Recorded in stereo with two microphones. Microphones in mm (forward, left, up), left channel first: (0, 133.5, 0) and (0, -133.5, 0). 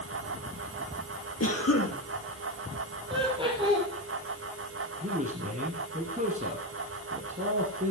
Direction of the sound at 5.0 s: 30° right (ahead or behind).